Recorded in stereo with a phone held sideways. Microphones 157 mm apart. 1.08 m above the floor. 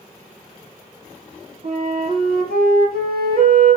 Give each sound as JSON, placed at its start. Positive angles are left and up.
{"t": 1.6, "sound": "a flute", "side_deg": -75, "distance_m": 9.0}